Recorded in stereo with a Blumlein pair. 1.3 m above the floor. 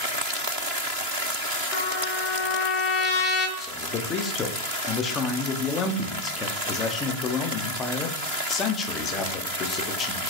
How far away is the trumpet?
About 0.9 m.